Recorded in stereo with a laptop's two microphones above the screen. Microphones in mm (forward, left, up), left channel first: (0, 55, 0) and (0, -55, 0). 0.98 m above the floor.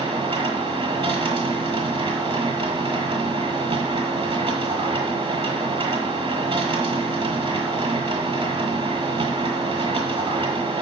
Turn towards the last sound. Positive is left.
turn(degrees=-60)  # may be behind; listen again after turning